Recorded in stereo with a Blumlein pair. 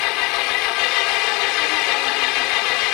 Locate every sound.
0.0 s an engine running: 45° left